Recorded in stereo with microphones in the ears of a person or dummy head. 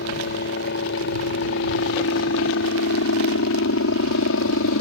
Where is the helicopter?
55° left (ahead or behind); by 4.8 s 60° left (ahead or behind).